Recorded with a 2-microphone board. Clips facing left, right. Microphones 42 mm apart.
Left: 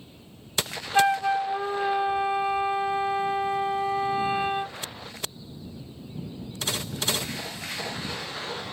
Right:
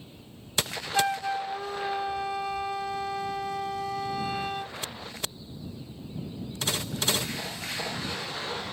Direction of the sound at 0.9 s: 30° left (ahead or behind).